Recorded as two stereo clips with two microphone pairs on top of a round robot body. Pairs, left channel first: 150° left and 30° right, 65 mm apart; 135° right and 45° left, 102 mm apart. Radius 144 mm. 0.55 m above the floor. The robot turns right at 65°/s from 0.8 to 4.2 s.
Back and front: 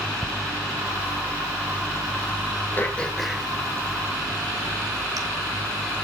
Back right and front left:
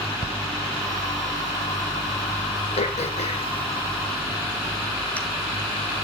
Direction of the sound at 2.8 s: 155° right.